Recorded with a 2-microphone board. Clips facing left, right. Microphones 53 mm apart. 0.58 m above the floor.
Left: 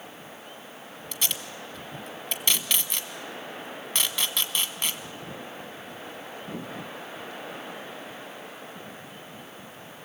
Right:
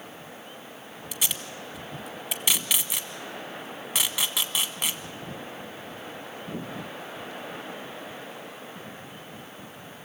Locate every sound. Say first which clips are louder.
1.1 s tape being pulled: even; 5° right (ahead or behind), 1.0 m